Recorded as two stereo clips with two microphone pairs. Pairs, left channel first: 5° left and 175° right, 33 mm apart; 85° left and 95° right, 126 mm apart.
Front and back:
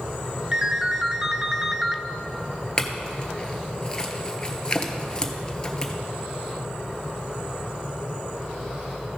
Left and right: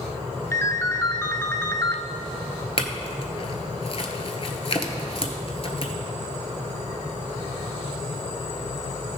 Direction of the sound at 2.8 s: 65° left.